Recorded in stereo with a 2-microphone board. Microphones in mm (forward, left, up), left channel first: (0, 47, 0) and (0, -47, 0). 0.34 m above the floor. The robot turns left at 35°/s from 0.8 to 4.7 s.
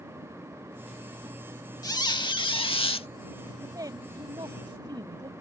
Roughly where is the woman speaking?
Ahead right.